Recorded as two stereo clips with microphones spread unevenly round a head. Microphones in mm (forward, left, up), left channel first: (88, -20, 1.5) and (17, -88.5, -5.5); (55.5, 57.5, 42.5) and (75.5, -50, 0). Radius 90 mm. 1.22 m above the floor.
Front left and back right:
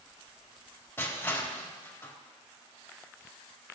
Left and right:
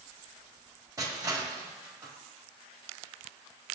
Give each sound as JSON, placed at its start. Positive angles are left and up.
{"t": 1.0, "sound": "crushing", "azimuth_deg": -25, "distance_m": 3.0}